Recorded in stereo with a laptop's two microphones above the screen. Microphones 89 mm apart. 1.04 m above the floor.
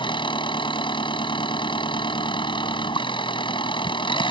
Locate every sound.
0.0 s an engine running: 70° left (ahead or behind)